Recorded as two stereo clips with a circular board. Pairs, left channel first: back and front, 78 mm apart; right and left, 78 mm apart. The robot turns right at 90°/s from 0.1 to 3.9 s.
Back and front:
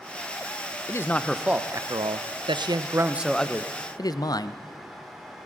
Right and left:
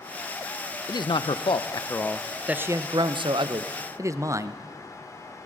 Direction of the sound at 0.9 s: 130° right.